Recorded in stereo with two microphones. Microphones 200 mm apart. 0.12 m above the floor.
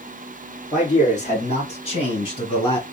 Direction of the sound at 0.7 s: 35° left (ahead or behind).